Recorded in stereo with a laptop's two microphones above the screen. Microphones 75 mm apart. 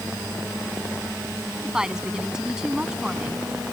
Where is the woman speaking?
10° right (ahead or behind).